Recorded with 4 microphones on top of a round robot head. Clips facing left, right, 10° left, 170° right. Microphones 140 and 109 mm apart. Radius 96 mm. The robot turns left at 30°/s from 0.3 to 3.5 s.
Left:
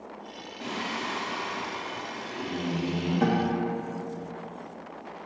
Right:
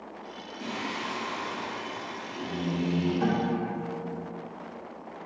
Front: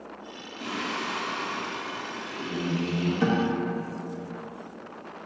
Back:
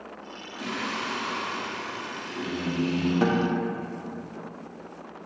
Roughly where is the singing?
Behind right.